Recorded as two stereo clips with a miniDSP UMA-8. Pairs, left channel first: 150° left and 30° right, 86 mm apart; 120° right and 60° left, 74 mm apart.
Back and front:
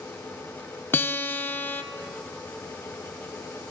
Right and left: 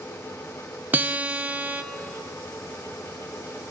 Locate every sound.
0.9 s a guitar: 105° left, 0.5 m